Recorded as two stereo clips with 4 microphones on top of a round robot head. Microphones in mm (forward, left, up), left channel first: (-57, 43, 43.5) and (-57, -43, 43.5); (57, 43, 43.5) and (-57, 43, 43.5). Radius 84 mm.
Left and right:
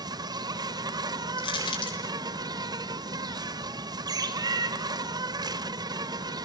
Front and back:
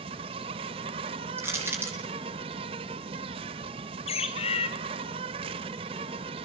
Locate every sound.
0.0 s an insect: 130° right, 1.1 m
1.4 s crushing: 110° left, 9 m
4.1 s a bird: 40° right, 1.8 m